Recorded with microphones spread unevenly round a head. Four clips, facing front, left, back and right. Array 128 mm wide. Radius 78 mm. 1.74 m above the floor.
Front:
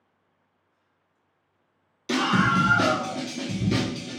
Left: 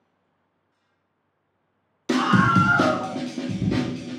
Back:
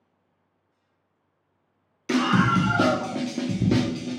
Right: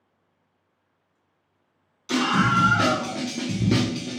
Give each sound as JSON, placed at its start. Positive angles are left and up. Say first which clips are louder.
{"t": 2.1, "sound": "a scream", "louder": "left 3 dB, back 1 dB", "azimuth_deg": 95, "distance_m": 0.7}